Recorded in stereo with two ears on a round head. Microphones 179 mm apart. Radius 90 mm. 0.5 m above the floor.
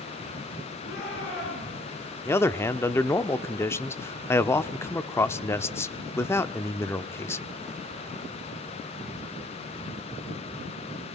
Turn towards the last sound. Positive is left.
turn(degrees=15)  # may be behind; listen again after turning